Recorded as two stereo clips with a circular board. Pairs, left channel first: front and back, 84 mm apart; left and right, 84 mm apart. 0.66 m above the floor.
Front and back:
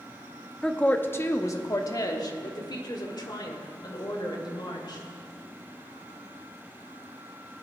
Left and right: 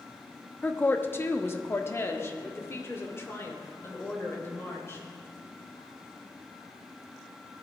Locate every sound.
0.6 s a woman speaking: 70° left, 0.7 m; by 5.0 s 30° left, 3 m